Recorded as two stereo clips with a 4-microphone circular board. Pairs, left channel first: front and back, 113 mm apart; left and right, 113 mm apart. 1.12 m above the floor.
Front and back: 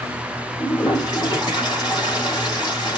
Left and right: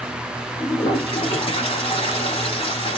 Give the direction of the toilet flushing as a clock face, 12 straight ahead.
10 o'clock.